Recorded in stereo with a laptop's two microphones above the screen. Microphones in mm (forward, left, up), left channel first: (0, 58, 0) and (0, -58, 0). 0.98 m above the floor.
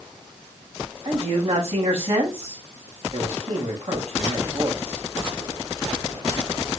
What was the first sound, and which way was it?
A man speaking, 60° right (ahead or behind).